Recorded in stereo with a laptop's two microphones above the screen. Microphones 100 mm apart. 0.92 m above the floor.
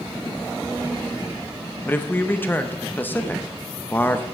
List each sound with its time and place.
1.9 s a man speaking: 20° left (ahead or behind), 0.7 m